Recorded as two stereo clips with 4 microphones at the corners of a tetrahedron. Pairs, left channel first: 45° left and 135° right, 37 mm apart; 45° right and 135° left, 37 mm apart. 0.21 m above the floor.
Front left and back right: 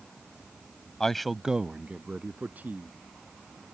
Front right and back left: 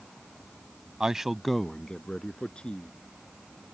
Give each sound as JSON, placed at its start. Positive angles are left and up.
{"t": 1.0, "sound": "a man speaking", "azimuth_deg": 95}